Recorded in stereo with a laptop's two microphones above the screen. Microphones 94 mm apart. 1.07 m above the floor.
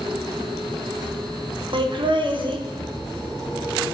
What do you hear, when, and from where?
1.7 s laughter: 55° right (ahead or behind), 0.8 m